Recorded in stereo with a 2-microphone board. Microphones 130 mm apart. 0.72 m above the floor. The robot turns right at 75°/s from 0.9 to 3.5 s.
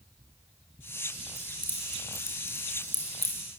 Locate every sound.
1.4 s keys jangling: 10° right (ahead or behind), 5.5 m; by 3.6 s 30° left (ahead or behind), 5.5 m